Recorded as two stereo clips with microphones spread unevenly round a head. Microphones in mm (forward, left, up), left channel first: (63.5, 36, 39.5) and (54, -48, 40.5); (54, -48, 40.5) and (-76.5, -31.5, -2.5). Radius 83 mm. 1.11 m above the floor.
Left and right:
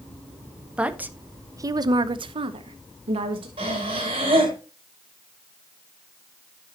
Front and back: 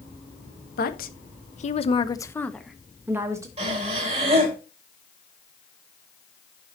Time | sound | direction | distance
0.8 | a woman speaking | 20° right | 1.2 m
3.6 | breathing | 145° right | 4 m